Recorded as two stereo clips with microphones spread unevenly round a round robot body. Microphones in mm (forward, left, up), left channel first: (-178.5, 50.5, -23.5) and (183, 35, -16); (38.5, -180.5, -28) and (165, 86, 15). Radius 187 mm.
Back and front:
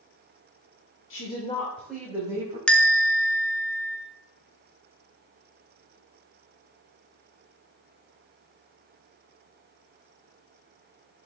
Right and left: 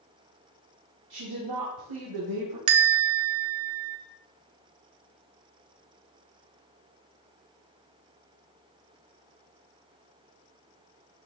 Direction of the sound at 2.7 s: 95° left.